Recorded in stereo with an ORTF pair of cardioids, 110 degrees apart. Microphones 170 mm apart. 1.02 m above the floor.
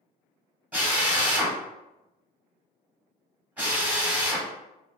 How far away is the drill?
About 1.2 m.